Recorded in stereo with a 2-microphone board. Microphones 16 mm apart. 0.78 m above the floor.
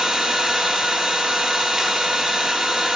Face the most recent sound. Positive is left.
turn(degrees=-20)  # may be behind; listen again after turning